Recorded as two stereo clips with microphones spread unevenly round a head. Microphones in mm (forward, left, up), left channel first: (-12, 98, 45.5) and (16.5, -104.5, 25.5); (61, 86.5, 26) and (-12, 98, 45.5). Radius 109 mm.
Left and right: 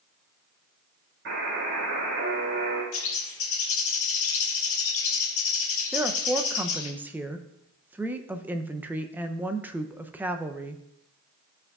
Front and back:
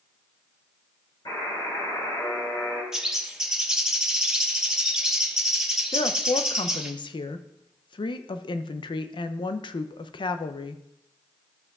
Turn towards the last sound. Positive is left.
turn(degrees=0)